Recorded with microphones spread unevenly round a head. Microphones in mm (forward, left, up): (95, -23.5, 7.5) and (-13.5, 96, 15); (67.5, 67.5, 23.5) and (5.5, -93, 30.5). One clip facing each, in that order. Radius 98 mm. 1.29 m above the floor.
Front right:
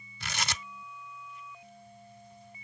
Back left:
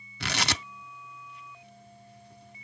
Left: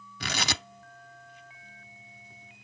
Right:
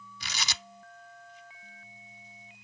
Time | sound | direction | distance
0.2 | tearing paper | 120° left | ?